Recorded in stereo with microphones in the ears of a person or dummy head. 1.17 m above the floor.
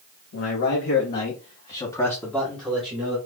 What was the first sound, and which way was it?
A man speaking, 75° left (ahead or behind).